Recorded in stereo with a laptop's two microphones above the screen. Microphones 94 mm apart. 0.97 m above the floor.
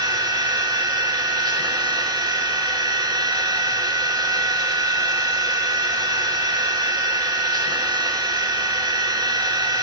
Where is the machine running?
45° right (ahead or behind), 2.5 m.